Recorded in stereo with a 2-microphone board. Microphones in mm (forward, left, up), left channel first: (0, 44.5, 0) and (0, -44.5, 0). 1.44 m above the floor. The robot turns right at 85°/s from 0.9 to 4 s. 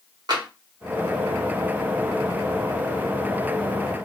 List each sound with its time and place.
0.3 s tapping: 50° right (ahead or behind), 1.3 m